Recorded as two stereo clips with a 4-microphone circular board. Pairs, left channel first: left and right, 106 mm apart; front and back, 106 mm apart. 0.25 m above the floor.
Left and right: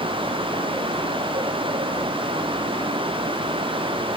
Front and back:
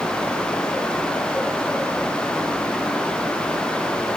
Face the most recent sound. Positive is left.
No sound to turn to.